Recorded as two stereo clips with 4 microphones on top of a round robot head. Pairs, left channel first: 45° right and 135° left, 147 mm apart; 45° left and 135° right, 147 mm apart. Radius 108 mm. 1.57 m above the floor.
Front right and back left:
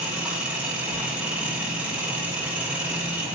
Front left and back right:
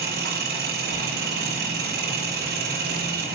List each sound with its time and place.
0.0 s an engine running: 145° right, 4.5 m